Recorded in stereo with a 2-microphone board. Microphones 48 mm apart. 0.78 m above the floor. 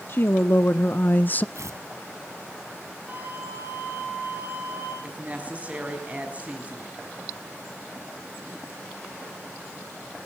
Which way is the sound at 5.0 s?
30° right (ahead or behind).